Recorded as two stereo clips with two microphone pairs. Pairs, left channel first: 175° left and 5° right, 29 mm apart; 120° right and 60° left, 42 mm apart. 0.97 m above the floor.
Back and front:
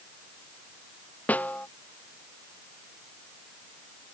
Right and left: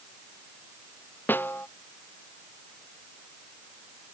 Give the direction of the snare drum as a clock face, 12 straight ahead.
5 o'clock.